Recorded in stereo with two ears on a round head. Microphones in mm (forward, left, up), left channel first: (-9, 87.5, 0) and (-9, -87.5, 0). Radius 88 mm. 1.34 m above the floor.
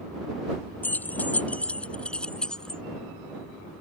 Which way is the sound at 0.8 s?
10° left (ahead or behind).